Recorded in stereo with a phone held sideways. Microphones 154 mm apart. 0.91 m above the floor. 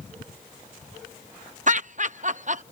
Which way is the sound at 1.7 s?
55° right (ahead or behind).